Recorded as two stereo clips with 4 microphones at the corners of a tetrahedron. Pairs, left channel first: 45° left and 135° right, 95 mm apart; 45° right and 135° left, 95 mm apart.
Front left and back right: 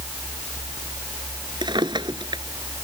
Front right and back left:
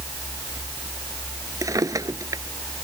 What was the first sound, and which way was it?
A drawer, 175° right.